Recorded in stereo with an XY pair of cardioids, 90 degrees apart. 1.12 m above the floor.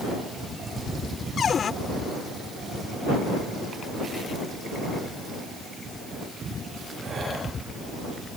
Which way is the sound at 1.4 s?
55° left.